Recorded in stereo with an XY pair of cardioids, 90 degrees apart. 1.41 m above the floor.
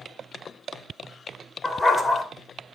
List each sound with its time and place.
1.6 s a dog barking: 30° left, 2.5 m